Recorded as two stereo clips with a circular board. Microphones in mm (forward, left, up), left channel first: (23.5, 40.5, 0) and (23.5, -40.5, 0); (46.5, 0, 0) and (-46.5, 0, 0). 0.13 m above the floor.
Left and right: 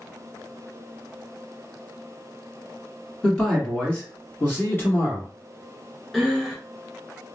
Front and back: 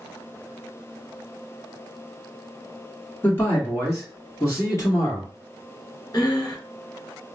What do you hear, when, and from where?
3.2 s a man speaking: 10° left, 1.4 m; by 5.3 s 45° left, 2 m
6.1 s breathing: straight ahead, 1.2 m